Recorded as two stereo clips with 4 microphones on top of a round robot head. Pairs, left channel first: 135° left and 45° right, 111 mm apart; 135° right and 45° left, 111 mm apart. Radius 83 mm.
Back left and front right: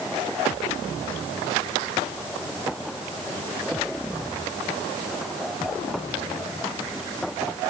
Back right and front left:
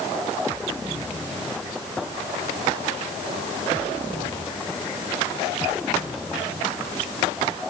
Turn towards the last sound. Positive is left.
No sound to turn to.